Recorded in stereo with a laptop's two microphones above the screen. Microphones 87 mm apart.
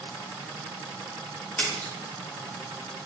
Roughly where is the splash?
Left.